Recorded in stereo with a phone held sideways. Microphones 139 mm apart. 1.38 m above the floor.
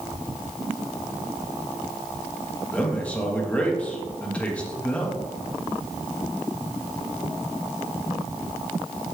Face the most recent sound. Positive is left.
turn(degrees=10)  # may be behind; listen again after turning